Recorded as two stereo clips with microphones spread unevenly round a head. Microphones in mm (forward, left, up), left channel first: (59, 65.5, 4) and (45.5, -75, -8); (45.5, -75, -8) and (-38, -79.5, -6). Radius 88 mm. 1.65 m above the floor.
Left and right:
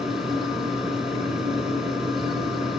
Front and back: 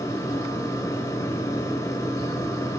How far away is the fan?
About 1.3 m.